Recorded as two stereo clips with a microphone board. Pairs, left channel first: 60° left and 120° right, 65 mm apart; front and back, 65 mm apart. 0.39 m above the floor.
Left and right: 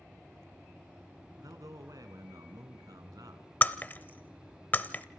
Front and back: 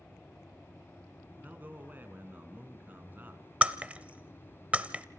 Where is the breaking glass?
115° left, 1.0 m.